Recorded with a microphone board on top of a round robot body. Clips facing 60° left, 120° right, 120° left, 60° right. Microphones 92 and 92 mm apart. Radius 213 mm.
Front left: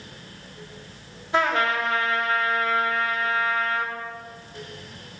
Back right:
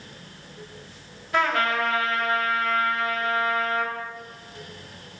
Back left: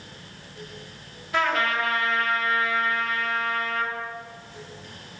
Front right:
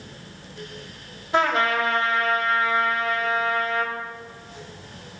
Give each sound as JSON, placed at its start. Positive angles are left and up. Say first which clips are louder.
{"t": 1.3, "sound": "a trumpet", "louder": "front left 1 dB, front right 3 dB", "azimuth_deg": 0, "distance_m": 2.5}